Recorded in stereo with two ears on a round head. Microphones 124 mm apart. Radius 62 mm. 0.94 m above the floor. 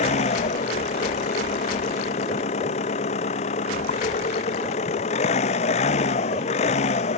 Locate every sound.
0.0 s an engine running: 50° left (ahead or behind)